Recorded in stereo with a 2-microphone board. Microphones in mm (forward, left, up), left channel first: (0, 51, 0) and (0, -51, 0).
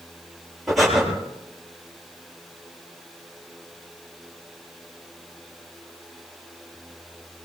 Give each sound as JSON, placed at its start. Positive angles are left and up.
{"t": 0.7, "sound": "breathing", "side_deg": 0, "distance_m": 7.0}